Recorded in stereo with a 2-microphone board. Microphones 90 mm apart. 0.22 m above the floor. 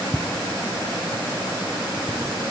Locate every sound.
0.1 s footsteps: 5° left (ahead or behind), 0.6 m; by 2.2 s 85° left, 3 m